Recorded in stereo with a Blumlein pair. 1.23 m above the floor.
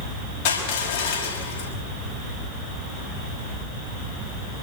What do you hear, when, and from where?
0.5 s crushing: 50° left, 5.5 m